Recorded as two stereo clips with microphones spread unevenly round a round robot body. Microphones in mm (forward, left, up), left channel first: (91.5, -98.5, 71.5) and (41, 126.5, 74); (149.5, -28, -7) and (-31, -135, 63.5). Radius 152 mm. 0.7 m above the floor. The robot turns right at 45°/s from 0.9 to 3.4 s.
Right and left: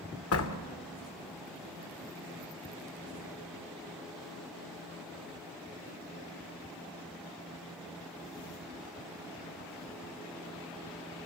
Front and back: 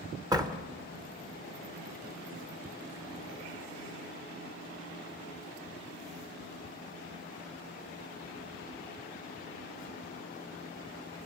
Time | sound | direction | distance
0.3 | a door slam | 70° right | 2 m